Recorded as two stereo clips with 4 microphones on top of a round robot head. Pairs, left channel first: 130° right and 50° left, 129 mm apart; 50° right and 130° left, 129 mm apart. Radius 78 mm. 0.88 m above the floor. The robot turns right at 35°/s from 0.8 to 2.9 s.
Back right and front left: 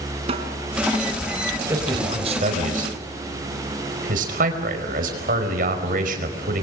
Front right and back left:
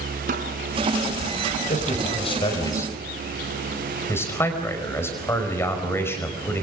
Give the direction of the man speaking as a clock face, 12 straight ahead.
1 o'clock.